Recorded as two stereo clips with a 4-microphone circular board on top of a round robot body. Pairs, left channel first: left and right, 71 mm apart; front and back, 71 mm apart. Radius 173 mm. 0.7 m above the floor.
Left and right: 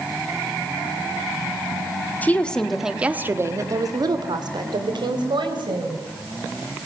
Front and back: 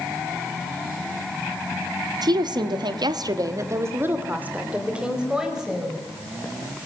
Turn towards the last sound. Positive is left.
turn(degrees=-95)